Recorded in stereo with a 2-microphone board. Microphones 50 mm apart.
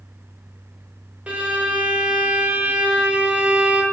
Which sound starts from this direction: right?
A violin, at 1.3 s.